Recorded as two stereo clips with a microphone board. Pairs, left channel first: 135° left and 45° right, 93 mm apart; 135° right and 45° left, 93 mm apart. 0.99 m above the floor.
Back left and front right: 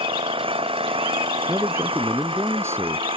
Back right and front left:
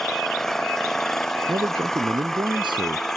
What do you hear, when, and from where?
0.0 s an engine running: 50° right
1.5 s a man speaking: 15° left